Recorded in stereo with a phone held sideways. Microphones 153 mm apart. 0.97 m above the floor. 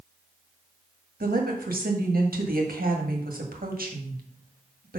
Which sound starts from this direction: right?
A woman speaking, at 1.2 s.